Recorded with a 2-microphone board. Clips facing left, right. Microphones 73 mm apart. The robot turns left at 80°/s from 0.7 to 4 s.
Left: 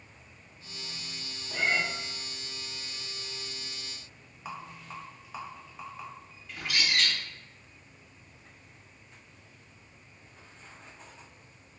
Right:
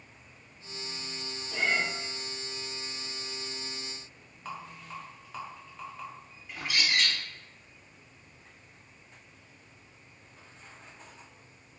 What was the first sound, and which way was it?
A cat meowing, 45° left (ahead or behind).